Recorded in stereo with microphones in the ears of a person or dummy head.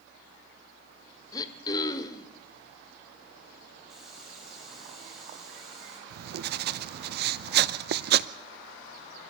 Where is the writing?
55° right (ahead or behind), 0.6 m.